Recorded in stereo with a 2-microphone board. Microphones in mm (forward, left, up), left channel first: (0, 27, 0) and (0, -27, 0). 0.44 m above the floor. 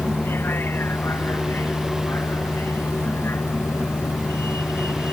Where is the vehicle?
40° left (ahead or behind); by 5.1 s 50° left (ahead or behind).